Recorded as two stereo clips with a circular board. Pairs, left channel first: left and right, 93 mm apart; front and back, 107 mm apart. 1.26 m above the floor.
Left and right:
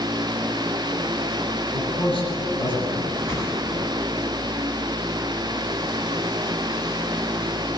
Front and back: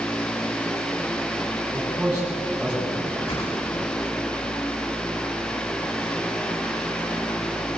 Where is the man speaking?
100° left, 9.5 m.